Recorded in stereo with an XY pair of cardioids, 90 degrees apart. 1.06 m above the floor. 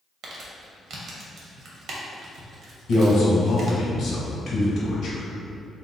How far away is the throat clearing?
I don't hear throat clearing.